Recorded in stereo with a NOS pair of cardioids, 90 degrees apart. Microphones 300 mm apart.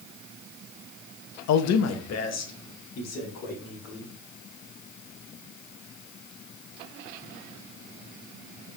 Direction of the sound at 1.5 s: 65° left.